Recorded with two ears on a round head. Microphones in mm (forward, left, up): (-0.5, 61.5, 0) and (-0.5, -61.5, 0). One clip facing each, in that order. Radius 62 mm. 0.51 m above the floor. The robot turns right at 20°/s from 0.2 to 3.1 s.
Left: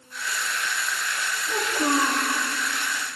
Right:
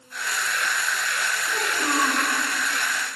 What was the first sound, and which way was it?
A child speaking, 10° left (ahead or behind).